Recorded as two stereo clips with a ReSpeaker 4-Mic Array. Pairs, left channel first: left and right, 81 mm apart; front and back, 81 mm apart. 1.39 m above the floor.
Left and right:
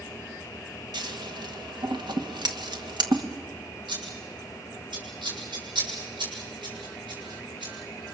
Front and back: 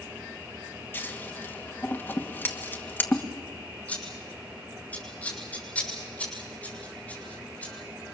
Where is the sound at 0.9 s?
65° right, 1.9 m.